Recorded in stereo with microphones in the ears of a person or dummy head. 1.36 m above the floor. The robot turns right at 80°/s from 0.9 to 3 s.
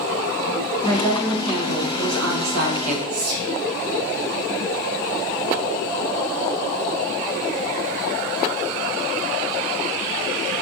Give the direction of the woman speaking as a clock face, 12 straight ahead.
7 o'clock.